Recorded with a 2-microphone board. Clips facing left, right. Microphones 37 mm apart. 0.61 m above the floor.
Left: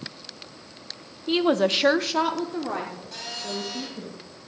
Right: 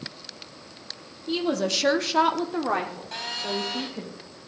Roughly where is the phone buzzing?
Right.